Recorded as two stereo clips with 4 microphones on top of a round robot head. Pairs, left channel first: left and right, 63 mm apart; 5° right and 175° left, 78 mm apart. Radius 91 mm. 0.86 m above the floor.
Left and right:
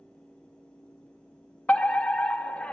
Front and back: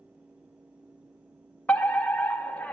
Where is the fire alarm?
45° left, 1.3 m.